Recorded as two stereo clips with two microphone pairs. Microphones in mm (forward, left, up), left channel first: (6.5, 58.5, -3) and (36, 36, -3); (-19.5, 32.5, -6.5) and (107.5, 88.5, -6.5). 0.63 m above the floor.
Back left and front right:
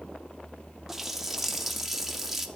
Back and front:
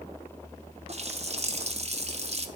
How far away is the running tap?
About 0.8 m.